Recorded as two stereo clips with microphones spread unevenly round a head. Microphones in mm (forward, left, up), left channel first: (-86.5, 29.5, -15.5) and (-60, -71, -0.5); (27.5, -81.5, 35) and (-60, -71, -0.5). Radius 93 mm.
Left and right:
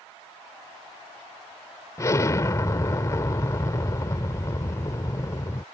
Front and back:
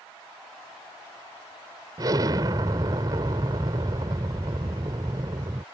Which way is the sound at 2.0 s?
120° left.